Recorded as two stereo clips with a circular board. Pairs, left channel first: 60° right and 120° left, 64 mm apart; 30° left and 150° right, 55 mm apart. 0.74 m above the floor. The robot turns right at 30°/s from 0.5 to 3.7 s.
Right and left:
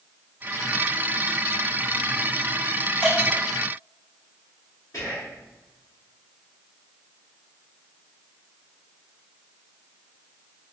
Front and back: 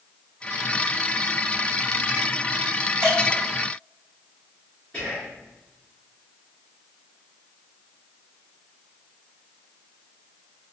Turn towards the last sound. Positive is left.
turn(degrees=-45)